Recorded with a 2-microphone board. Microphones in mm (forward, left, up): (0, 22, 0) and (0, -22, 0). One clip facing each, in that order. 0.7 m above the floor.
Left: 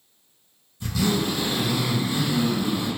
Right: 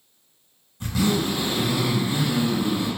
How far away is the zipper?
About 1.4 m.